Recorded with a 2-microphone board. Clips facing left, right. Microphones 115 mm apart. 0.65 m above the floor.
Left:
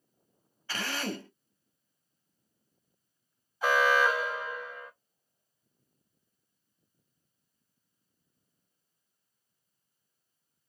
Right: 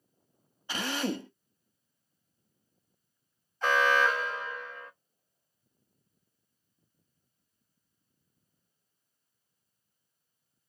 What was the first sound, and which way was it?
A drill, 20° right (ahead or behind).